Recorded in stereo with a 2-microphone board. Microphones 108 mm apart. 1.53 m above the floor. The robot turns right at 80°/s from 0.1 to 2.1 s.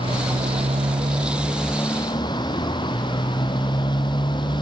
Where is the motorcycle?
55° right (ahead or behind); by 4.6 s 45° left (ahead or behind).